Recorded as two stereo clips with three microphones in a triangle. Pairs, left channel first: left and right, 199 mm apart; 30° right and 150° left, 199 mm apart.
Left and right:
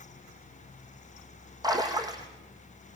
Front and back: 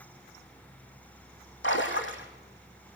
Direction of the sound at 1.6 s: 20° right.